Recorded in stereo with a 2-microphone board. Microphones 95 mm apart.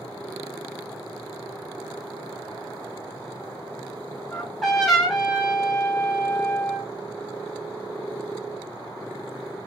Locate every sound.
4.3 s a trumpet: centre (ahead or behind), 2.5 m